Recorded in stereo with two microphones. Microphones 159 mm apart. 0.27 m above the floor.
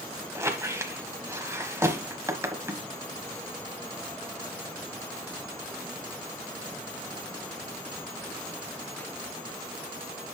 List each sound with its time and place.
0.3 s a squeak: 15° right (ahead or behind), 1.1 m